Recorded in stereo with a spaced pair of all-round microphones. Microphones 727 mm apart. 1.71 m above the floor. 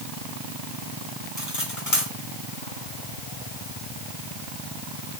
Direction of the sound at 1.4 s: 20° left (ahead or behind).